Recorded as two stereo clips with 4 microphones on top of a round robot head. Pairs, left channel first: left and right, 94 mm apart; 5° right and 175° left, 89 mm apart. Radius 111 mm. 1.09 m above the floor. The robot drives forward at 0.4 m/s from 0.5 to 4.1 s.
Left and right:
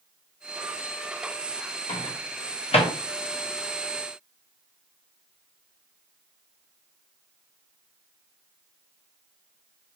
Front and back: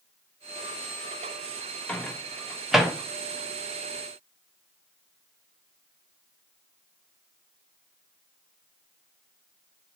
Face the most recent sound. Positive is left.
turn(degrees=115)